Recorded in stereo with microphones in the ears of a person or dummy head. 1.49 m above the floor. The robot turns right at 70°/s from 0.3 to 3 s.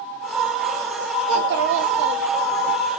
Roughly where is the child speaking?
Behind right.